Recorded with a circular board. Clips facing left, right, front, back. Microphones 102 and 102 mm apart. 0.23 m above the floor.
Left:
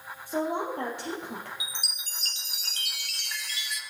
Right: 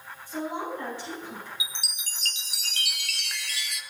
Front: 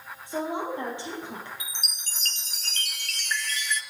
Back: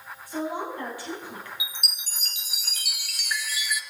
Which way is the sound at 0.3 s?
65° left.